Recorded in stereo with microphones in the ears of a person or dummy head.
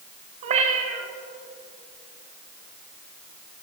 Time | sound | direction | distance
0.4 | a cat meowing | 40° right (ahead or behind) | 1.9 m